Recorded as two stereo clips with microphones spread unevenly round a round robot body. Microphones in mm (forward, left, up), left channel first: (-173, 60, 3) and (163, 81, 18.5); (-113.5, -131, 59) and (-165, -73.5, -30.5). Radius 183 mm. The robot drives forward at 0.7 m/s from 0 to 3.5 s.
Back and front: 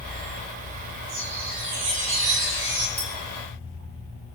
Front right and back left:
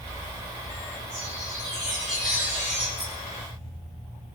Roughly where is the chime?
Ahead.